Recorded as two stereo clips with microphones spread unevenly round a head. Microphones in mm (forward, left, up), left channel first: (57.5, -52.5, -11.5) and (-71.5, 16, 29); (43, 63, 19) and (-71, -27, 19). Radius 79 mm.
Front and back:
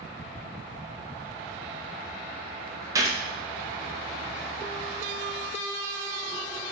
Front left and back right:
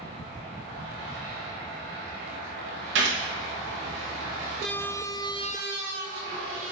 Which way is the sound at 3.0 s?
140° right.